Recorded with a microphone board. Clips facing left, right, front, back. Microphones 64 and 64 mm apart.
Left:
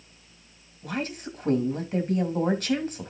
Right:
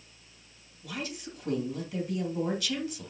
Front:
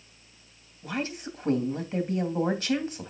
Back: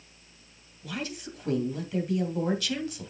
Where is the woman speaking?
55° left, 2.5 m.